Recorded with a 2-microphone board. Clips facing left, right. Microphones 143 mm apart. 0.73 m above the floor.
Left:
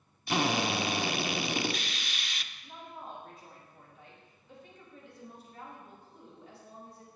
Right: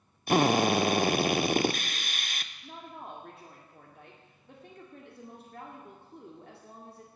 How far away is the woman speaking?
About 1.9 m.